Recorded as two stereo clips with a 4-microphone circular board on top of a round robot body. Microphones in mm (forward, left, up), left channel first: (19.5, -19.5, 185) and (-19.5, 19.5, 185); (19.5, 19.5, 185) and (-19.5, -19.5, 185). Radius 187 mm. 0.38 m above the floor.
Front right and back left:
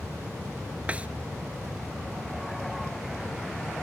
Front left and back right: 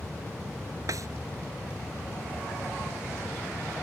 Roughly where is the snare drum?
Behind right.